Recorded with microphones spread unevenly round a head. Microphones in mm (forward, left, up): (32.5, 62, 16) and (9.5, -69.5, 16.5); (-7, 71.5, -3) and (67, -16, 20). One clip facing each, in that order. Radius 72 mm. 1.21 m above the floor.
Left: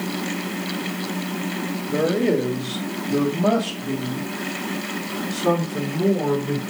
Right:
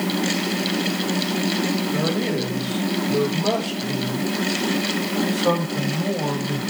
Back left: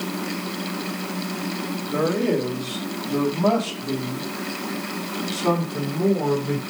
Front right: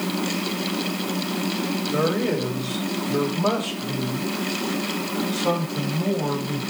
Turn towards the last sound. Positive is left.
turn(degrees=110)